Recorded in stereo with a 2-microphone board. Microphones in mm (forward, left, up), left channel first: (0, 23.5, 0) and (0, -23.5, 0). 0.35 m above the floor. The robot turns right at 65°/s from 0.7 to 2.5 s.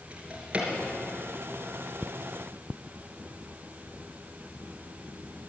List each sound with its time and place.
0.1 s a drawer: 25° right (ahead or behind), 3 m; by 0.7 s 20° right (ahead or behind), 3 m